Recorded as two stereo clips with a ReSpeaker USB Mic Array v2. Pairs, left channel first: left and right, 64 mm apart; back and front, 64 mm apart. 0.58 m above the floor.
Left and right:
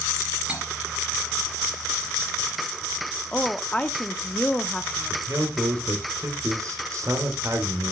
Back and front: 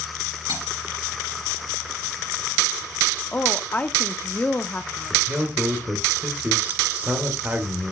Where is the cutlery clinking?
20° right, 6.5 m.